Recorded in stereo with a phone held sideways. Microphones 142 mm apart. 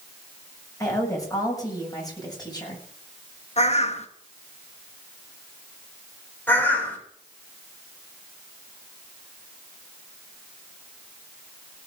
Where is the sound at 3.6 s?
50° left (ahead or behind), 1.1 m.